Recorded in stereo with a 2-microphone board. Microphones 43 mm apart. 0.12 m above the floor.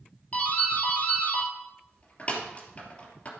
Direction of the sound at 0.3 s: 30° left (ahead or behind).